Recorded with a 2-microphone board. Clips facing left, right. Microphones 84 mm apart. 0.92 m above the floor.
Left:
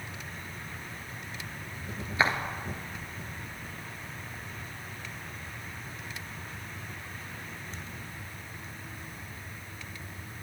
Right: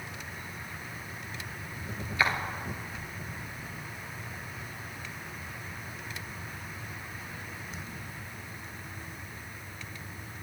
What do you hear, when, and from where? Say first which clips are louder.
2.2 s footsteps: left 1 dB; 25° left (ahead or behind), 1.0 m